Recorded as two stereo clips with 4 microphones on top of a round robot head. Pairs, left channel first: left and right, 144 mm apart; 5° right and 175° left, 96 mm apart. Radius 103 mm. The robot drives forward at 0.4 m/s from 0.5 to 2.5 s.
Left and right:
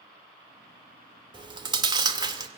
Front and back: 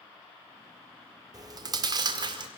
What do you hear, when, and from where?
1.3 s chewing: 140° right, 1.8 m; by 2.5 s 150° right, 2 m